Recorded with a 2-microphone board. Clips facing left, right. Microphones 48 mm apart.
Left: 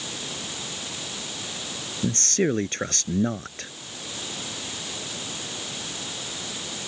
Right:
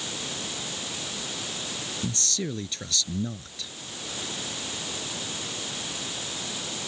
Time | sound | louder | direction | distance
2.0 | a man speaking | left 10 dB | 45° left (ahead or behind) | ?